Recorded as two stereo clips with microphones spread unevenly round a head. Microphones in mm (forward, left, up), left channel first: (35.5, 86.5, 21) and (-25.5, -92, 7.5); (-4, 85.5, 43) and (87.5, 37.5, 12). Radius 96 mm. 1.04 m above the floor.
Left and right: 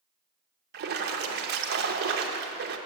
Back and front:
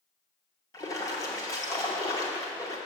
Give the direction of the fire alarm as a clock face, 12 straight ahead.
I don't hear a fire alarm.